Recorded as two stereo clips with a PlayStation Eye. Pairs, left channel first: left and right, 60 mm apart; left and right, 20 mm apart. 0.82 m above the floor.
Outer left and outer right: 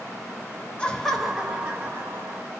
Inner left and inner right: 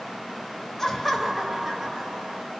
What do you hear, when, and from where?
0.8 s laughter: 20° left (ahead or behind), 0.7 m; by 2.5 s 30° right (ahead or behind), 1.3 m